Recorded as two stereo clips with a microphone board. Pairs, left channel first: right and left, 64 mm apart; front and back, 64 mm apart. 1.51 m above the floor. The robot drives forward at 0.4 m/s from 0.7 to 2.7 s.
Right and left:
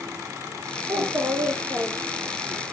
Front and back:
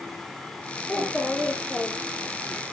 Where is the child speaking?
80° left, 1.6 m; by 2.6 s 110° left, 1.7 m.